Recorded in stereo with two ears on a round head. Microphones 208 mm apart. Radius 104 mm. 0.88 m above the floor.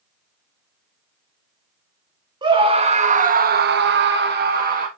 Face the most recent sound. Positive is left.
turn(degrees=-35)  # may be behind; listen again after turning